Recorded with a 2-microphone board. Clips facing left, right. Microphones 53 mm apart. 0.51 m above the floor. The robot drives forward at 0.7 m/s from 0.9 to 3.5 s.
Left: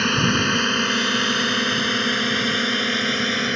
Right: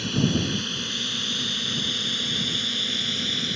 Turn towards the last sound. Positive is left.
turn(degrees=50)  # may be behind; listen again after turning